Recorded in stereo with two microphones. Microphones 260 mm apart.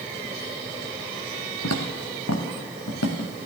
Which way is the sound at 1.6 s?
80° left.